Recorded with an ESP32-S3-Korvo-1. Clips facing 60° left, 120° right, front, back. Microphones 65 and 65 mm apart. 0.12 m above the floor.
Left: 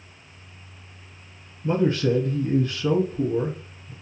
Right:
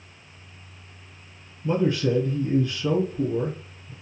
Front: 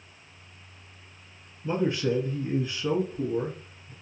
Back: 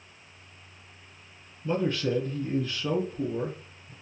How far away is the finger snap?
I don't hear a finger snap.